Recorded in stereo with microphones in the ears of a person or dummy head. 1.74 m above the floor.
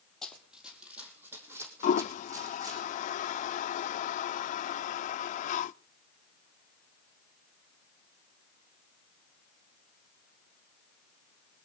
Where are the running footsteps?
5° left (ahead or behind), 3 m; by 2.8 s 20° right (ahead or behind), 5.5 m.